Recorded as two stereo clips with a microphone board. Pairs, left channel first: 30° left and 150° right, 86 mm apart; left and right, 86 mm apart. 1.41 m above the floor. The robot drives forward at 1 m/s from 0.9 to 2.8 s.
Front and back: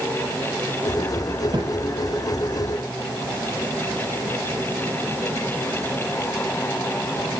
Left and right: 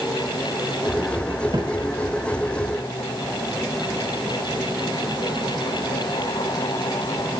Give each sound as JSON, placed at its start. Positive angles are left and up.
{"t": 1.5, "sound": "a thud", "azimuth_deg": -115, "distance_m": 5.0}